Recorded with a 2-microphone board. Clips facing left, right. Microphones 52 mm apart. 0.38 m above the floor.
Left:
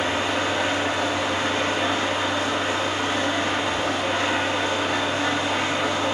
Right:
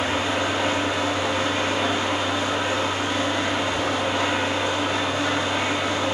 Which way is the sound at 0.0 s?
50° left (ahead or behind).